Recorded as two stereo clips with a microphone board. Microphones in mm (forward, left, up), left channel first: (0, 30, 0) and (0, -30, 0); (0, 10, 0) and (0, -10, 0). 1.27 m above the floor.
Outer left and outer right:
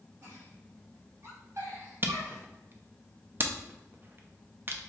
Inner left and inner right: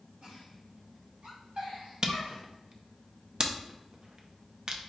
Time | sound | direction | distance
0.2 | a giggle | 60° right (ahead or behind) | 1.9 m
2.0 | a camera shutter | 35° right (ahead or behind) | 0.5 m